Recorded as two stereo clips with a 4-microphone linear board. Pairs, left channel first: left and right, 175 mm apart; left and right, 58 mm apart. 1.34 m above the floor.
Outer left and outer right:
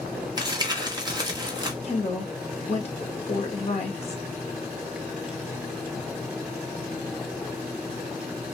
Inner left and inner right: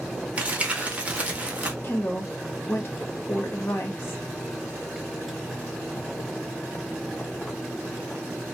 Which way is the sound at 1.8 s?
40° left (ahead or behind).